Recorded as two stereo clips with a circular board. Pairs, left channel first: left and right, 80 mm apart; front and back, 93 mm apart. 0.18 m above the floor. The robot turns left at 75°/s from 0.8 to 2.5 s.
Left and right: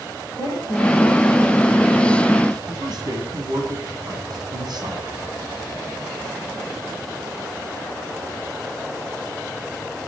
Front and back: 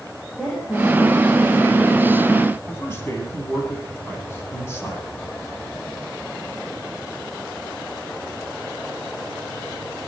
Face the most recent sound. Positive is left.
turn(degrees=-60)